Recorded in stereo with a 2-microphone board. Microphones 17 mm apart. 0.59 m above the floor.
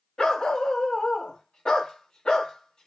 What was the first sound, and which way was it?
A dog barking, 80° left.